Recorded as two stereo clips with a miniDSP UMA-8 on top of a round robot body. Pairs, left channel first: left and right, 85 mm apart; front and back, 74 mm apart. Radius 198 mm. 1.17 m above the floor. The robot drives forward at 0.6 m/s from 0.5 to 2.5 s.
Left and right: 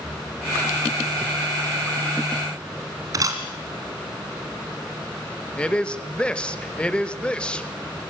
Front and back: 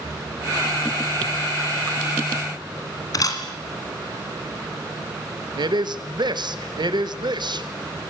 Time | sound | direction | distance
3.1 | a camera shutter | 40° right | 2 m
5.6 | a man speaking | 170° left | 2.5 m